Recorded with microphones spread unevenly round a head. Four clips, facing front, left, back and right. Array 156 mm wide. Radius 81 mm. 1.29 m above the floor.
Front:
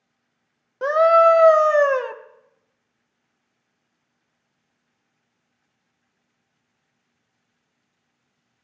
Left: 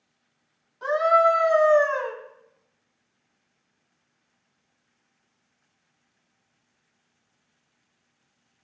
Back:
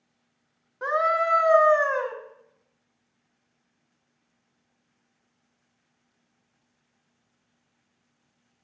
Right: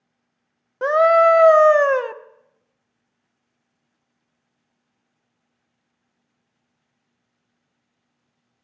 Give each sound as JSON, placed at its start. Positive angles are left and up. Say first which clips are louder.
{"t": 0.8, "sound": "a scream", "louder": "right 5 dB, front 10 dB", "azimuth_deg": -55, "distance_m": 1.0}